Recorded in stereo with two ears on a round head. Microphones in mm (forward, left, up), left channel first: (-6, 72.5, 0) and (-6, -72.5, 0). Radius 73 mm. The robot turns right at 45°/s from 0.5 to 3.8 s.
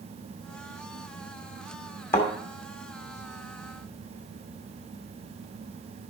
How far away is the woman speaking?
I don't hear a woman speaking.